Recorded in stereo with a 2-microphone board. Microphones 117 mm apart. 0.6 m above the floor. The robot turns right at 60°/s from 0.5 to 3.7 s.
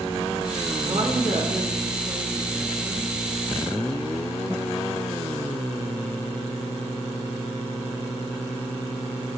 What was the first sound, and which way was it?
A woman speaking, 120° right.